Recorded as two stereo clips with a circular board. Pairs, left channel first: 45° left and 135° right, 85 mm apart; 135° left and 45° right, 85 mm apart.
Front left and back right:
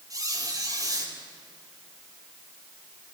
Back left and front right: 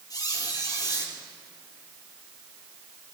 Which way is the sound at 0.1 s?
175° left.